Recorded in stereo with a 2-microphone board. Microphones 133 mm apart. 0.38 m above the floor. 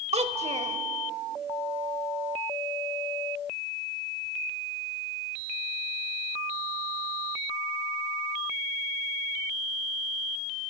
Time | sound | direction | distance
0.1 | a child speaking | 50° right (ahead or behind) | 1.2 m